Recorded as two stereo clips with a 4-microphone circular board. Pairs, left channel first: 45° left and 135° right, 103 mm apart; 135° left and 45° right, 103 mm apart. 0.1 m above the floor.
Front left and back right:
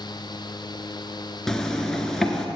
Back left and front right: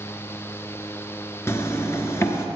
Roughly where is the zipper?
Behind left.